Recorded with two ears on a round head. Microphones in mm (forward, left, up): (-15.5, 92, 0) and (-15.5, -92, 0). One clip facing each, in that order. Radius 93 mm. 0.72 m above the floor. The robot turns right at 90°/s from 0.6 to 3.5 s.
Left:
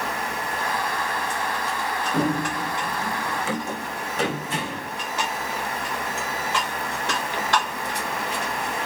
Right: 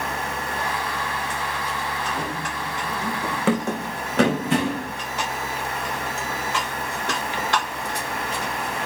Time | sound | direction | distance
2.1 | running footsteps | 60° left (ahead or behind) | 1.8 m